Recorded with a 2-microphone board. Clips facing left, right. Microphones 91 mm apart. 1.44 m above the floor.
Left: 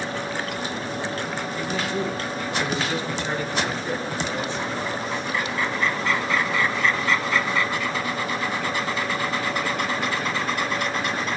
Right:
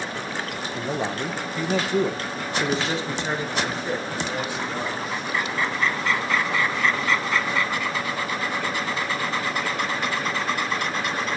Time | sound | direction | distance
0.8 | a man speaking | 80° right | 1.3 m